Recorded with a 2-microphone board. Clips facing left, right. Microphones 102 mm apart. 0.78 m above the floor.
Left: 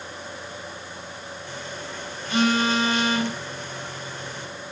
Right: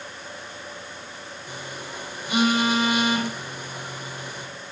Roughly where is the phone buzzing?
Centre.